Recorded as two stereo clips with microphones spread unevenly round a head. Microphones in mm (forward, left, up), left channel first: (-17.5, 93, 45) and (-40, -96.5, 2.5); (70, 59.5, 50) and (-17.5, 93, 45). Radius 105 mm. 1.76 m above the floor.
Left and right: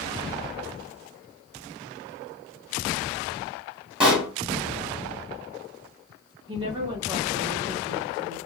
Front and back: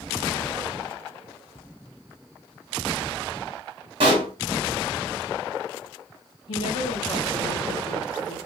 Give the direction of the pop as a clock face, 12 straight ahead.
6 o'clock.